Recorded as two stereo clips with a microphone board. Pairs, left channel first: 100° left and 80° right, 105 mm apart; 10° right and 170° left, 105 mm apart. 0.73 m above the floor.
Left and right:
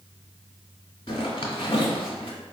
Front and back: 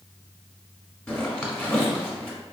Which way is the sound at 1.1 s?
60° left.